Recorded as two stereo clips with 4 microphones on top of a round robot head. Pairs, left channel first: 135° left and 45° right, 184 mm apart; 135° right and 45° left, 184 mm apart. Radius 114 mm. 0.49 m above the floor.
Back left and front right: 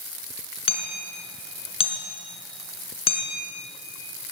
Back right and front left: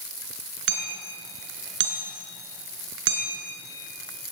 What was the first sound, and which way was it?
Hammering, 75° left.